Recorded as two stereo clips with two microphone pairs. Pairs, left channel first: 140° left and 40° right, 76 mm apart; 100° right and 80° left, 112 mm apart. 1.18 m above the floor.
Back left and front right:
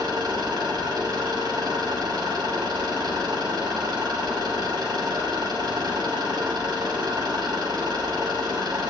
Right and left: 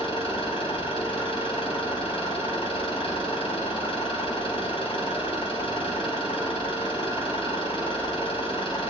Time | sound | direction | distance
0.0 | an engine running | 65° right | 4.5 m